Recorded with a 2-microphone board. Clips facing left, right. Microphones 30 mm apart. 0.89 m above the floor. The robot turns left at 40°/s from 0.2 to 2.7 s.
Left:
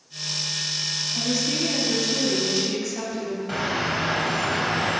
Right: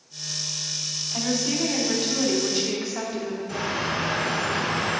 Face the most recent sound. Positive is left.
turn(degrees=50)  # may be behind; listen again after turning